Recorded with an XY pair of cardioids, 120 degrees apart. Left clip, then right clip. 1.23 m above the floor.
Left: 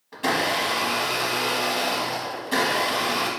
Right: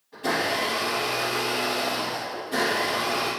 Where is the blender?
65° left, 1.7 m.